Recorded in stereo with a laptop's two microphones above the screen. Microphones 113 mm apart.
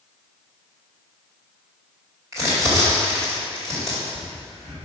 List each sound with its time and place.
2.3 s crumpling: 30° right (ahead or behind), 2.5 m